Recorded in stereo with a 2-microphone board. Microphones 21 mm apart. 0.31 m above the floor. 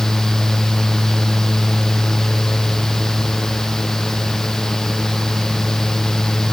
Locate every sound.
Only background noise.